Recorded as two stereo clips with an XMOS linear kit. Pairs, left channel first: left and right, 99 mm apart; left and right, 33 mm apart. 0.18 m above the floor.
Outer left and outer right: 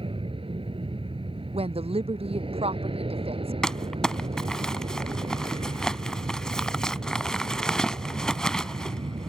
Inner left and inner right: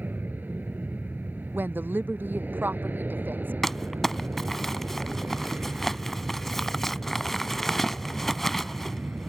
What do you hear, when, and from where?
0.0 s an aircraft: 65° right (ahead or behind)
1.5 s a woman speaking: 80° right
3.6 s crumpling: 5° left (ahead or behind)